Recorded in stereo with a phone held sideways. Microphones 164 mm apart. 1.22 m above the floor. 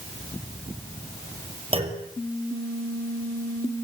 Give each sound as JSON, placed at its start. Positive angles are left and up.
{"t": 1.7, "sound": "a clunk", "side_deg": -35, "distance_m": 5.5}